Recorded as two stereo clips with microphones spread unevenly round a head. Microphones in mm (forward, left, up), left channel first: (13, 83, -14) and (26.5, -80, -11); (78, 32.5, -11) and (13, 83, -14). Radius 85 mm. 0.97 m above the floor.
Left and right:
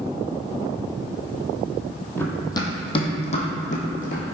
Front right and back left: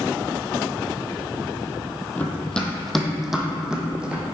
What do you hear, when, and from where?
2.2 s running footsteps: 25° left, 1.2 m; by 4.2 s 65° left, 1.9 m